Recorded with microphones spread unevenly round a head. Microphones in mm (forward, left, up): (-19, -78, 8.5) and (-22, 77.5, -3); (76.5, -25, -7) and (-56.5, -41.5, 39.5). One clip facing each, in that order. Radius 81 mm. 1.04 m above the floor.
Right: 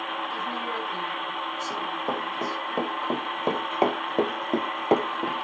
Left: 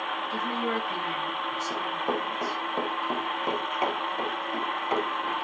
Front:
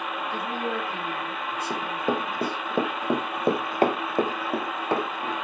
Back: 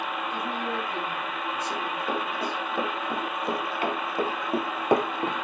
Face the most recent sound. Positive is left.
turn(degrees=-135)